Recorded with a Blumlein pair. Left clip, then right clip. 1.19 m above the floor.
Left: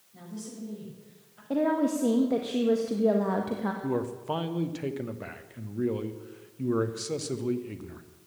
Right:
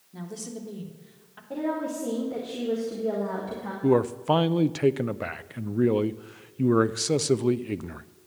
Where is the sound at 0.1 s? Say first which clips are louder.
Right 5 dB; 55° right, 3.5 m.